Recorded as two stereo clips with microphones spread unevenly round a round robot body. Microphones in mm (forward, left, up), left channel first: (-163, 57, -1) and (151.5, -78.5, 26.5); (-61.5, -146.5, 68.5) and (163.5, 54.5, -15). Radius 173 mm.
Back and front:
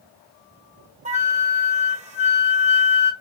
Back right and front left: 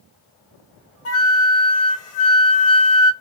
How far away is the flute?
About 1.2 m.